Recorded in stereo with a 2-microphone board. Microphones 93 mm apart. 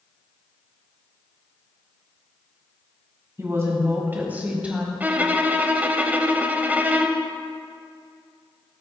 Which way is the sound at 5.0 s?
20° right (ahead or behind).